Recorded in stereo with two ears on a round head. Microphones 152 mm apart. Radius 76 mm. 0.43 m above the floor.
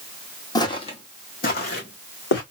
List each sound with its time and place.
0.6 s footsteps: 25° left (ahead or behind), 1.2 m; by 2.4 s 75° left (ahead or behind), 2 m